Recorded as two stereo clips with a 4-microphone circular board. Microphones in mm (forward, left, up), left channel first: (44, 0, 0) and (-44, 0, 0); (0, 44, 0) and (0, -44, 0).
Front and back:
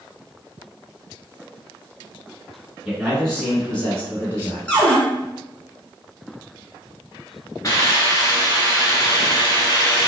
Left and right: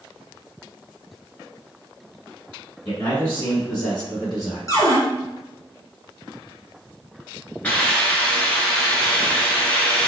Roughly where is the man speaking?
Left.